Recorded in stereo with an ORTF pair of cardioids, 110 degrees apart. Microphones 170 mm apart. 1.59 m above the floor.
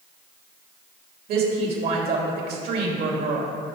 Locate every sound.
1.3 s a woman speaking: 65° right, 3 m